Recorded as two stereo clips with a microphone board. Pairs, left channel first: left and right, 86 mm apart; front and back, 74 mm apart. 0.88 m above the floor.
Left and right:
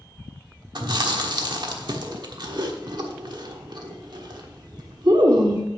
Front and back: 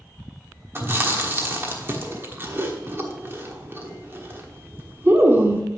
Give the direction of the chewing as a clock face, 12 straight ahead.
4 o'clock.